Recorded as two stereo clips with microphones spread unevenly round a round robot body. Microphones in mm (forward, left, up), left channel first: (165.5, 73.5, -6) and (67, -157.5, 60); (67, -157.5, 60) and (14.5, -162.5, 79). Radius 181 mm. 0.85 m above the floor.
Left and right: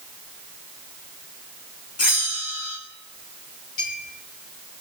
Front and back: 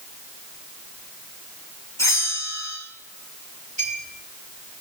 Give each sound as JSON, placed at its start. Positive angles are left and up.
{"t": 2.0, "sound": "a bell", "azimuth_deg": 45, "distance_m": 4.0}
{"t": 3.8, "sound": "a clink", "azimuth_deg": 80, "distance_m": 9.5}